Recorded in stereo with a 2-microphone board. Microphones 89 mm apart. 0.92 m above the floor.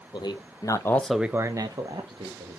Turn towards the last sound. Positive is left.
turn(degrees=-65)  # may be behind; listen again after turning